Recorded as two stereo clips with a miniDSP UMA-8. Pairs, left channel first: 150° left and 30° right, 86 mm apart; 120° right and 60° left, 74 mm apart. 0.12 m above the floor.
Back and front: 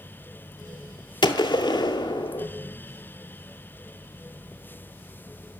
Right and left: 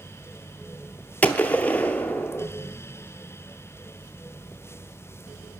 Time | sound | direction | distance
1.2 | a gunshot | 170° left | 0.5 m